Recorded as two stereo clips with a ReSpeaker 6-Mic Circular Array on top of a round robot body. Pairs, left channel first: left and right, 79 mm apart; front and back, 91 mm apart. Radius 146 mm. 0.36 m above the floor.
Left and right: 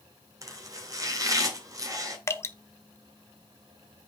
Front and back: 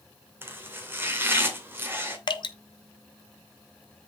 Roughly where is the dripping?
Ahead left.